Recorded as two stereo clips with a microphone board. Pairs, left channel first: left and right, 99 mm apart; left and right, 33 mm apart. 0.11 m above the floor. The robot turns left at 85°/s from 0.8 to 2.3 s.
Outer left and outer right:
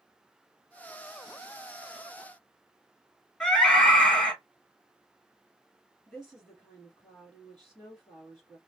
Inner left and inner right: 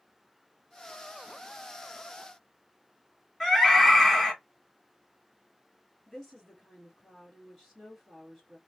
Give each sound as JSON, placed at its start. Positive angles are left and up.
{"t": 3.4, "sound": "a scream", "side_deg": 10, "distance_m": 2.0}
{"t": 6.1, "sound": "a woman speaking", "side_deg": 10, "distance_m": 1.9}